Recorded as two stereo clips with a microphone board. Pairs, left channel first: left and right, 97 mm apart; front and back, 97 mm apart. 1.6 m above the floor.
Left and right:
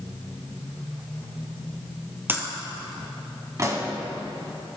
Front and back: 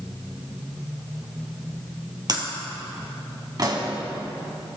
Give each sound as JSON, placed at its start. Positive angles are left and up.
{"t": 2.3, "sound": "breaking glass", "azimuth_deg": -150, "distance_m": 2.5}
{"t": 3.6, "sound": "a pop", "azimuth_deg": -140, "distance_m": 2.5}